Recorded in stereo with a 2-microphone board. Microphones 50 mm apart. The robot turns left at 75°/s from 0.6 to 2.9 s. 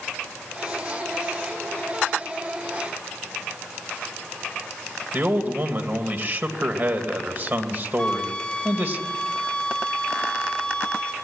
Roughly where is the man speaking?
Right.